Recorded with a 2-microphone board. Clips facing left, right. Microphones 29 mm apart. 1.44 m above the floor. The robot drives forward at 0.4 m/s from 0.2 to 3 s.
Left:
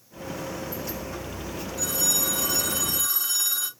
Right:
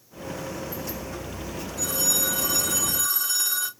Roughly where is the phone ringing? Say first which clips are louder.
Right 1 dB; centre.